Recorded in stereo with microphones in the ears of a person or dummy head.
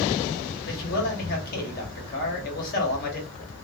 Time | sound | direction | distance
0.7 | a man speaking | 50° left (ahead or behind) | 1.2 m